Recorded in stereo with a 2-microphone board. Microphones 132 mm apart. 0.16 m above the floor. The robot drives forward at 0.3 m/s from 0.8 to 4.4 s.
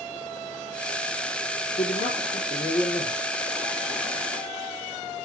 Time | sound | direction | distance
1.8 | a man speaking | 55° left (ahead or behind) | 3.5 m